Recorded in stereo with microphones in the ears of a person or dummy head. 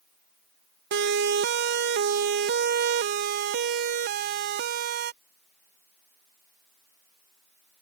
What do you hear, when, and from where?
0.9 s a siren: 50° right (ahead or behind)